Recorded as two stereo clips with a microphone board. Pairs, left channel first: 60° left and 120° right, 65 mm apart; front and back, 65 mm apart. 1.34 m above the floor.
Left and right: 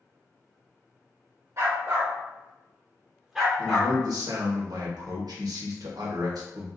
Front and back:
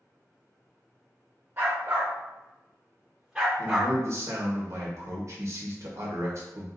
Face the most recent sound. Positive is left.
turn(degrees=-135)